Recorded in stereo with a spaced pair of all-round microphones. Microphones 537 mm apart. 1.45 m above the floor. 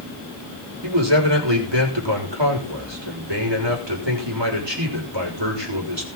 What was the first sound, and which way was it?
A man speaking, 50° right (ahead or behind).